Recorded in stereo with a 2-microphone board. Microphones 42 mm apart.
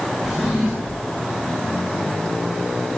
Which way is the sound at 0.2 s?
5° right (ahead or behind).